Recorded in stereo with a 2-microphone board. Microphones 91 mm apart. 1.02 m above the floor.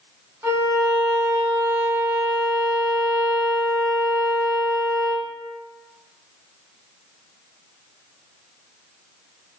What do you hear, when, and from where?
0.4 s a violin: 25° right (ahead or behind), 0.8 m